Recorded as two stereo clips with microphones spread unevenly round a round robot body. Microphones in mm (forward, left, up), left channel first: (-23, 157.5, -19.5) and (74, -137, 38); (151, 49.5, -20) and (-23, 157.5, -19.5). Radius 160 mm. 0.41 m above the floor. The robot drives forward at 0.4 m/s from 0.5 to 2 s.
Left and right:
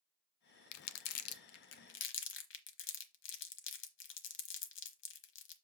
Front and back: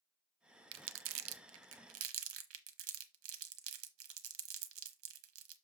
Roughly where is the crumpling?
Behind left.